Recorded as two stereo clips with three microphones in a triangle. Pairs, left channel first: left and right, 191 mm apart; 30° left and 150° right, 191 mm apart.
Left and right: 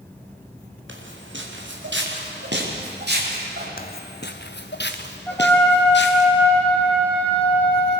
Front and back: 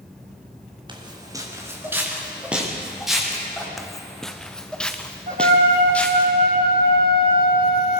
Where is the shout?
I don't hear a shout.